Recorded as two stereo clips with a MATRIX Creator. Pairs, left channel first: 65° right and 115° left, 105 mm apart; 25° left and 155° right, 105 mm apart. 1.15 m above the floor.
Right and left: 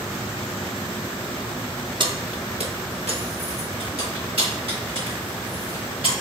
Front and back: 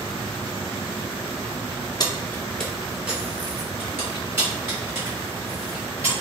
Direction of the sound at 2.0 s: 70° left.